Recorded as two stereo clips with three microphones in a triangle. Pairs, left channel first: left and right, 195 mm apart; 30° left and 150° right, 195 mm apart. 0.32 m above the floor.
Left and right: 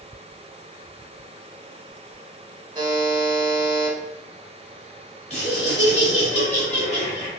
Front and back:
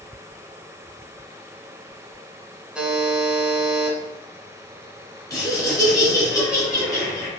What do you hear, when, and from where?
2.8 s a buzzer: 70° right, 1.1 m
5.3 s laughter: 85° left, 1.8 m